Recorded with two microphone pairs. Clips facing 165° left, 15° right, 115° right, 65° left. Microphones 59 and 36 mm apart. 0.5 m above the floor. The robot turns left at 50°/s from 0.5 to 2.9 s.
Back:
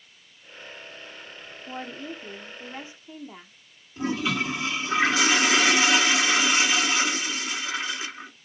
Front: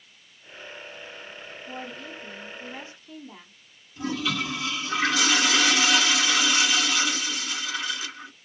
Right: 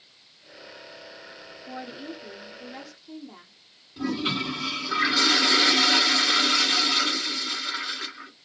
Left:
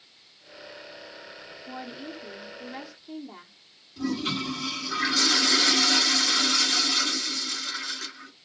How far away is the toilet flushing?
About 1.2 m.